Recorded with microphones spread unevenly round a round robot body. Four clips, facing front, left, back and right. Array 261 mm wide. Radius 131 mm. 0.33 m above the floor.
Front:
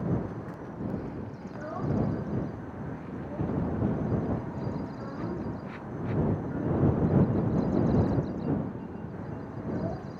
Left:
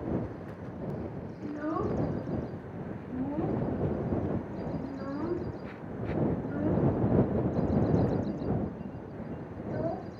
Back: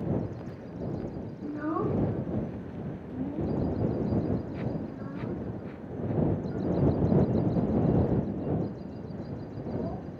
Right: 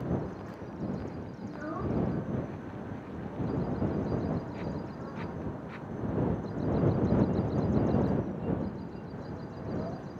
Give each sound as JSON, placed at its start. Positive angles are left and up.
{"t": 1.4, "sound": "a child speaking", "azimuth_deg": 155}